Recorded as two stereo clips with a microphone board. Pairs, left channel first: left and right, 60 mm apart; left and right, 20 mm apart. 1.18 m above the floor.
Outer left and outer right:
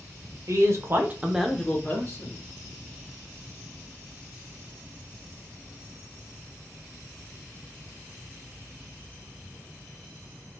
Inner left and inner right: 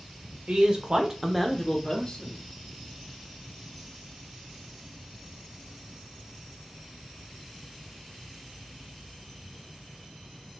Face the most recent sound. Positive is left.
turn(degrees=50)  # may be behind; listen again after turning